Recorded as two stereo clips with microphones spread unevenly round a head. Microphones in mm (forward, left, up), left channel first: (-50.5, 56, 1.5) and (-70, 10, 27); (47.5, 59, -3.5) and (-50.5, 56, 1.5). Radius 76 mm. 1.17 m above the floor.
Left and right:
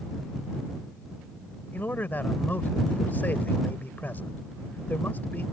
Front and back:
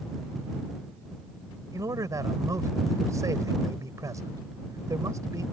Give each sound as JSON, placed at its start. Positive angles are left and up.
{"t": 1.7, "sound": "a man speaking", "azimuth_deg": 125}